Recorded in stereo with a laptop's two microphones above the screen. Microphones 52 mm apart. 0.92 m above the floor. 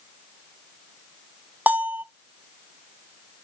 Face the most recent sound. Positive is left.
turn(degrees=-30)  # may be behind; listen again after turning